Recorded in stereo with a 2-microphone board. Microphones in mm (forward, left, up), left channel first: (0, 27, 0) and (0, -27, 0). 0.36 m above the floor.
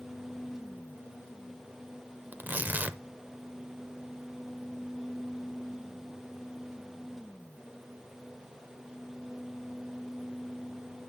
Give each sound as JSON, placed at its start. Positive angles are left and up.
{"t": 2.3, "sound": "tearing paper", "side_deg": -35, "distance_m": 0.8}